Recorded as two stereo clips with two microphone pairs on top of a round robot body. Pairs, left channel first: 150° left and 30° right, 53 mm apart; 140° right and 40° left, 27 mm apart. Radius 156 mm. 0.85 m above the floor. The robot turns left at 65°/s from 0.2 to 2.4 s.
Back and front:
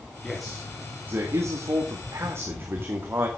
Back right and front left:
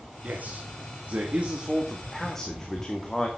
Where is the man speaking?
75° left, 2.5 m; by 3.3 s 70° right, 2.5 m.